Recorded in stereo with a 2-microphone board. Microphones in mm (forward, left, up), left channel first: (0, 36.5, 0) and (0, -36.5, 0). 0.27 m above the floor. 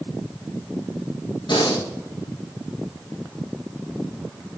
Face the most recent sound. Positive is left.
turn(degrees=80)